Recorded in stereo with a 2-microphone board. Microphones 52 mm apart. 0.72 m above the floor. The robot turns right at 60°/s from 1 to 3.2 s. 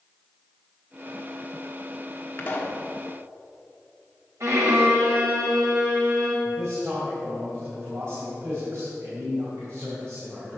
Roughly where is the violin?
Right.